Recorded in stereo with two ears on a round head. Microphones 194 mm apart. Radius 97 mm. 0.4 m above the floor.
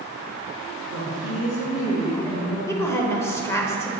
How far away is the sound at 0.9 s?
About 2.5 m.